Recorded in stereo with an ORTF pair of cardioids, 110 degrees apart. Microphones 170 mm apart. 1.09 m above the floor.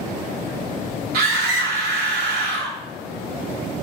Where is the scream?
65° right, 3 m.